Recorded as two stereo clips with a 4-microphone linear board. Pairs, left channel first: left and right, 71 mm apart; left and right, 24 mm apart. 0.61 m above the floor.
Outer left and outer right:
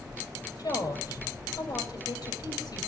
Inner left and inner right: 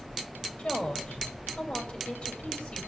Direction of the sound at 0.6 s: 60° left (ahead or behind).